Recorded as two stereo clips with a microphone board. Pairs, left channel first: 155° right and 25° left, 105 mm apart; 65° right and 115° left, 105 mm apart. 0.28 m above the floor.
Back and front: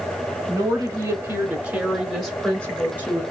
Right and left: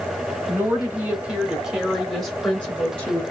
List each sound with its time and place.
0.5 s a woman speaking: 55° left, 1.8 m; by 3.2 s 120° right, 1.5 m